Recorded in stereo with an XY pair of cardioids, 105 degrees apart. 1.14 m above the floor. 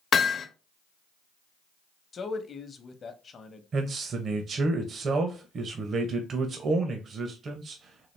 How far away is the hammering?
About 0.7 m.